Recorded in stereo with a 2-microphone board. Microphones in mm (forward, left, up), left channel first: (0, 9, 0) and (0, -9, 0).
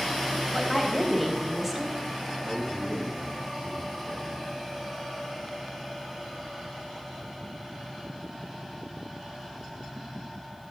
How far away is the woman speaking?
About 3 m.